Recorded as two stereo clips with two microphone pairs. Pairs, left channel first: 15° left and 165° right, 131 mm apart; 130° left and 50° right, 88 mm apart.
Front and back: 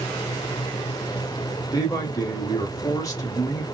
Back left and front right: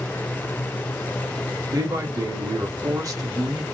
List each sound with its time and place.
1.7 s a man speaking: 35° right, 1.2 m